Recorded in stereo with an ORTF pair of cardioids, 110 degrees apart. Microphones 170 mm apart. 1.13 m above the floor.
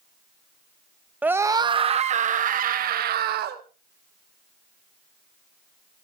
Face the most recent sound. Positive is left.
turn(degrees=-70)